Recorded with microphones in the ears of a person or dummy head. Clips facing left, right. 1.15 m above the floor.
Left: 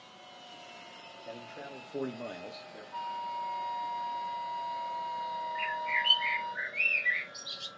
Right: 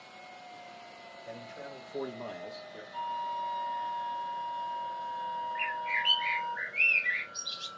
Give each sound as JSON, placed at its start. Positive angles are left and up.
{"t": 1.2, "sound": "a man speaking", "side_deg": 25, "distance_m": 1.2}
{"t": 2.9, "sound": "a flute", "side_deg": 55, "distance_m": 1.0}
{"t": 5.5, "sound": "a bird", "side_deg": 5, "distance_m": 2.5}